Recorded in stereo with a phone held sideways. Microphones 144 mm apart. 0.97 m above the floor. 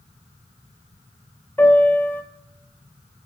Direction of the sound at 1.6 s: 15° left (ahead or behind).